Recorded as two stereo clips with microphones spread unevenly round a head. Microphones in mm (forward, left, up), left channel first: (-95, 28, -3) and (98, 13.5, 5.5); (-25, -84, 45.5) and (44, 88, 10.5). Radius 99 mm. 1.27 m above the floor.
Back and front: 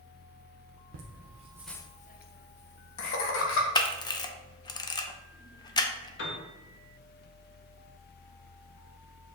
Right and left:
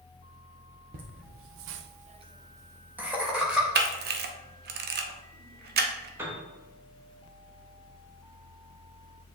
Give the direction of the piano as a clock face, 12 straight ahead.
7 o'clock.